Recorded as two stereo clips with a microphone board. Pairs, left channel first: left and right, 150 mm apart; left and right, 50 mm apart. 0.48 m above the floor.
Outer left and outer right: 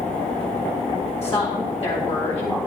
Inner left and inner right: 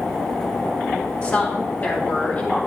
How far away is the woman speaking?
About 3 m.